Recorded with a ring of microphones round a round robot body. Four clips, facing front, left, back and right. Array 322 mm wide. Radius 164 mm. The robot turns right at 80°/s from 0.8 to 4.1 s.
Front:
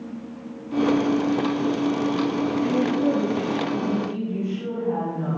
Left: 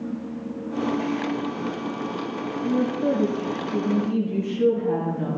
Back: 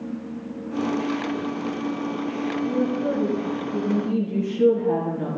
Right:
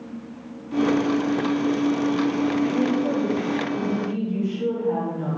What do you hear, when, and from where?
2.6 s a woman speaking: 15° left, 5.5 m; by 5.4 s 135° left, 5.5 m